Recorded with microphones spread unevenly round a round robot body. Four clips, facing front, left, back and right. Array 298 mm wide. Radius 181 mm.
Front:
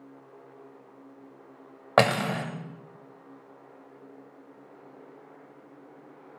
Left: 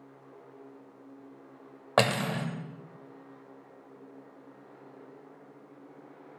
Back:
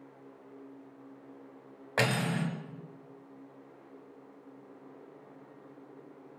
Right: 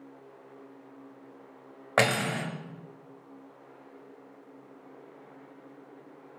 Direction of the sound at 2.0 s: 5° right.